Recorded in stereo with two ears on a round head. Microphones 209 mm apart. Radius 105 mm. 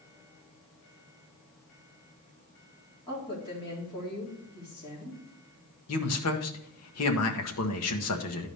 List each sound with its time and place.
3.1 s a woman speaking: 20° left (ahead or behind), 4 m
5.9 s a man speaking: 70° left (ahead or behind), 1.3 m